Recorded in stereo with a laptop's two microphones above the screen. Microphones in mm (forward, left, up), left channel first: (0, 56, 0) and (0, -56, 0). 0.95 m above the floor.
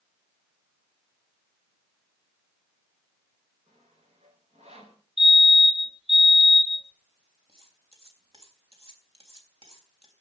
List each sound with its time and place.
3.7 s sawing: 70° right (ahead or behind), 4.5 m
5.2 s a fire alarm: 60° right (ahead or behind), 3.5 m
7.5 s cutlery clinking: 55° right (ahead or behind), 3.5 m